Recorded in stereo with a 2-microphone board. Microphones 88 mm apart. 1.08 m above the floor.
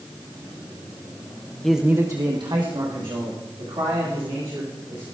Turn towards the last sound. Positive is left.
turn(degrees=-75)  # may be behind; listen again after turning